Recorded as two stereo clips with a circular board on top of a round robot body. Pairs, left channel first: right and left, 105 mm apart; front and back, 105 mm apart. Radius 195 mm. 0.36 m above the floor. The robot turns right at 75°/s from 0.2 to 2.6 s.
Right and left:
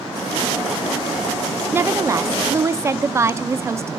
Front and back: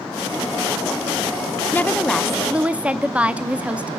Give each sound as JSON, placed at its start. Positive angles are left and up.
{"t": 1.7, "sound": "a woman speaking", "azimuth_deg": 50, "distance_m": 1.2}